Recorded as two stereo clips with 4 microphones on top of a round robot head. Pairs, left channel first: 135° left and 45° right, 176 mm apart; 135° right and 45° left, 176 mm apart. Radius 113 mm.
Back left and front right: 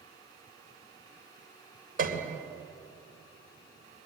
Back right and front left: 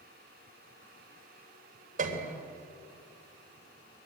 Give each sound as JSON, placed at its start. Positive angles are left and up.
{"t": 2.0, "sound": "a piano", "azimuth_deg": -5, "distance_m": 3.0}